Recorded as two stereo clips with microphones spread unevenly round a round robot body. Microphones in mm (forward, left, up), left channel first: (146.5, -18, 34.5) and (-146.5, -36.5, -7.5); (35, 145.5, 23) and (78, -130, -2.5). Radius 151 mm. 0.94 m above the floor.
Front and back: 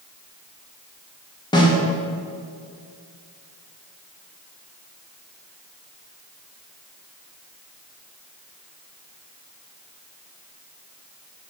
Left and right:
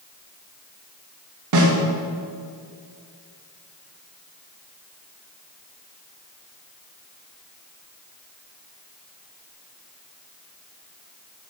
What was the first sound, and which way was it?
A snare drum, 75° right.